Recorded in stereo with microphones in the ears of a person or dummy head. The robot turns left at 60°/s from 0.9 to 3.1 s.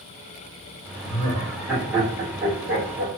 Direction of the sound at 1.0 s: 35° left (ahead or behind).